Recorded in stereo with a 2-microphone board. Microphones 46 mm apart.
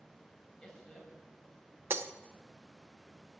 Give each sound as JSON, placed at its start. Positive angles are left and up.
{"t": 0.6, "sound": "a man speaking", "side_deg": 10, "distance_m": 4.0}
{"t": 1.9, "sound": "breaking glass", "side_deg": -55, "distance_m": 0.5}